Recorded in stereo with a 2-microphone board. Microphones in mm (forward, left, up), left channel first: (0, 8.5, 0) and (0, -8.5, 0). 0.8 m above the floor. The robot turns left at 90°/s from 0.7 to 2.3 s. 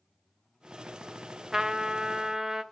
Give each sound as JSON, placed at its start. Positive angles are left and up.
{"t": 1.5, "sound": "a trumpet", "azimuth_deg": -60, "distance_m": 0.9}